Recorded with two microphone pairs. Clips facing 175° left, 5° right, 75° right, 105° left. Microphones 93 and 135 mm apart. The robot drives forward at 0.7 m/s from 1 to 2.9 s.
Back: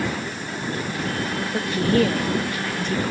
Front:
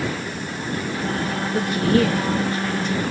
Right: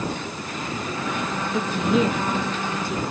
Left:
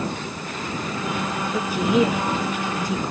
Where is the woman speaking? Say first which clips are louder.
Front 1 dB, left 1 dB; straight behind, 1.3 m.